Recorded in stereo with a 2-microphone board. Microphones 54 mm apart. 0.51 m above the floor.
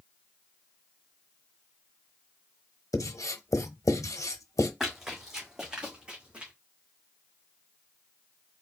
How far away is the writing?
About 0.7 m.